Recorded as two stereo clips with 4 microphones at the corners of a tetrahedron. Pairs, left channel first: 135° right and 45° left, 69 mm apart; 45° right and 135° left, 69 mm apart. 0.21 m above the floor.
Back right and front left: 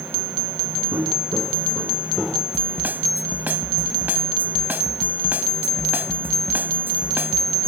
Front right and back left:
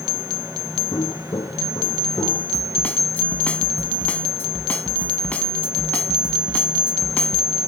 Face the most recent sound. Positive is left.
turn(degrees=5)